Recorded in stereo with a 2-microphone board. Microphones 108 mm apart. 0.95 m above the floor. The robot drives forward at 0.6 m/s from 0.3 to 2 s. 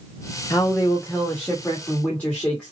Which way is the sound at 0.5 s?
30° left (ahead or behind).